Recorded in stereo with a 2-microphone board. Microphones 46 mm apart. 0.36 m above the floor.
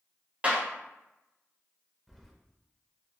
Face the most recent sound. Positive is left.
turn(degrees=0)  # may be behind; listen again after turning